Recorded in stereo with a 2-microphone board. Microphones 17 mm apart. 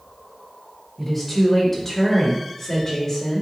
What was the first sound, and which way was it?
A woman speaking, 10° left (ahead or behind).